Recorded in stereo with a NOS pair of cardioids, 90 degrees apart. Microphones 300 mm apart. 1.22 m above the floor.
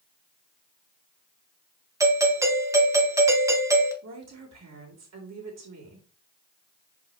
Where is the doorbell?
10° right, 1.6 m.